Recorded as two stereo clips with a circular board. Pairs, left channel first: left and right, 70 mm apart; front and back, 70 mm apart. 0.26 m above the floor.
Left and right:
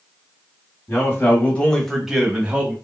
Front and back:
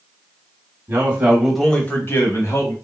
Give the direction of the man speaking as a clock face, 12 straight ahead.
8 o'clock.